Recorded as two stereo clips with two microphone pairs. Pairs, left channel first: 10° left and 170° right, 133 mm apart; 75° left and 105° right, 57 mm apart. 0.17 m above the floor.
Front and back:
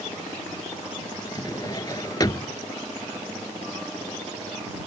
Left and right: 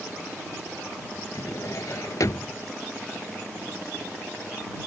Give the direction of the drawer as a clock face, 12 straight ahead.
10 o'clock.